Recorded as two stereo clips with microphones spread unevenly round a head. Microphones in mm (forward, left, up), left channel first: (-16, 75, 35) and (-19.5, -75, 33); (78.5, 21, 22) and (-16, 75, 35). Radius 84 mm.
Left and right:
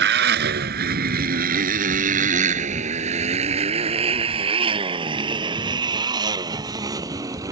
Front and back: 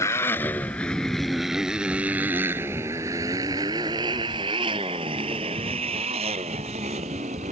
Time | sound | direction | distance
0.0 | a motorcycle | 105° right | ?